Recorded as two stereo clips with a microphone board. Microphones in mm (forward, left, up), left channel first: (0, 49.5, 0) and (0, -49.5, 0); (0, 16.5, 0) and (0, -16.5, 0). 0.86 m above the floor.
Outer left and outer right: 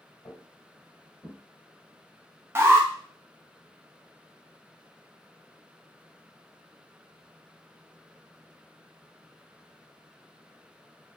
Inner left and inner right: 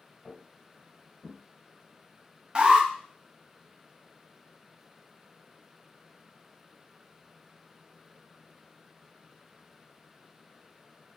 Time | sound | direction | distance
0.2 | footsteps | 35° left (ahead or behind) | 1.3 m
2.5 | an alarm | 30° right (ahead or behind) | 0.5 m